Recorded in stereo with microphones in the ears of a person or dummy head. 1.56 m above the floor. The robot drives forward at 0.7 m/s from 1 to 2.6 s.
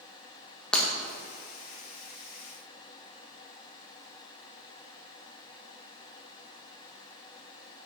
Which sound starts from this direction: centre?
Breaking glass, at 0.7 s.